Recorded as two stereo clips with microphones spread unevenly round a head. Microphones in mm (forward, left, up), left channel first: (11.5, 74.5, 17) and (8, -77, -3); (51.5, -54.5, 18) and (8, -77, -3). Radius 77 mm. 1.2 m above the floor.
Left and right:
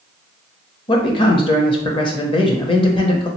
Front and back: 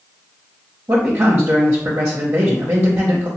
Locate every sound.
0.9 s a man speaking: 150° left, 0.7 m